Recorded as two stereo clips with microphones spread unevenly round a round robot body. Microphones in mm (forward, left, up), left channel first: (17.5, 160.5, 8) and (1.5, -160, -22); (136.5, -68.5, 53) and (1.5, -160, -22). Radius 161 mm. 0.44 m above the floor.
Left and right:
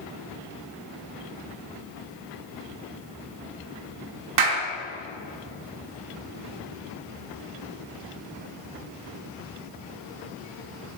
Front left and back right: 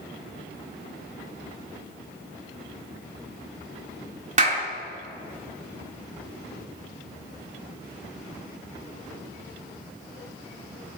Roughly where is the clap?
Behind right.